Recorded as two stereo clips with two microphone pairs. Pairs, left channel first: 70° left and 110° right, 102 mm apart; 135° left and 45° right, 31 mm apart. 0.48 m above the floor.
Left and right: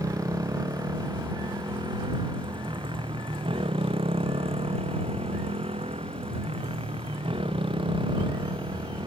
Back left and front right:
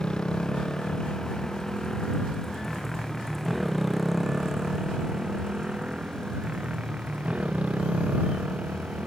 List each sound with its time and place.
0.0 s a motorcycle: 165° right; by 9.1 s 80° right